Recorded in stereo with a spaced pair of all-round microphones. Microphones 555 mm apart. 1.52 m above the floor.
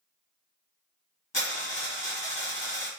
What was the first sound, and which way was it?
A dropped coin, 50° left (ahead or behind).